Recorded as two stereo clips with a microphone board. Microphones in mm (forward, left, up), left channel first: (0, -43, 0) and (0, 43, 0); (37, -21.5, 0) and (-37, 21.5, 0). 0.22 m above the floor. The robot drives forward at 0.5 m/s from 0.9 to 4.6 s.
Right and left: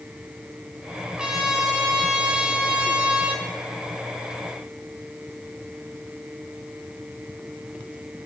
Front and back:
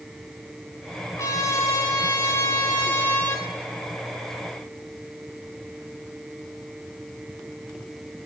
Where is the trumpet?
10° left, 2.5 m; by 3.5 s 25° left, 1.9 m.